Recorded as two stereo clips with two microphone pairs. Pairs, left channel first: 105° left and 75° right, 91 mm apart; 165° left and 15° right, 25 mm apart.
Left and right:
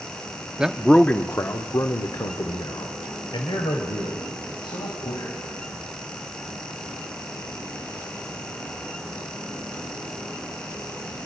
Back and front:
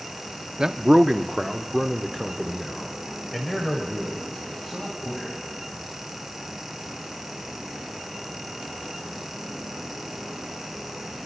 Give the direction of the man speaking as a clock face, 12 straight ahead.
12 o'clock.